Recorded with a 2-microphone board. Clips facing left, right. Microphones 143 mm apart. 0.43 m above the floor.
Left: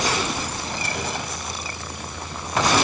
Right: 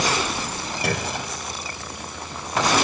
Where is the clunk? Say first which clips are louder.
Right 5 dB; 65° right (ahead or behind), 2.5 m.